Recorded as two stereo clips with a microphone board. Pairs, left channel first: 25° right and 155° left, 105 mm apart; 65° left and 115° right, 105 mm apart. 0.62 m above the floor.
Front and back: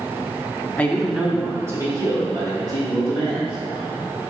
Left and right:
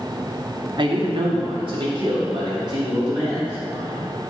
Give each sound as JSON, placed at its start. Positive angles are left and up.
{"t": 0.8, "sound": "a man speaking", "azimuth_deg": -90, "distance_m": 0.8}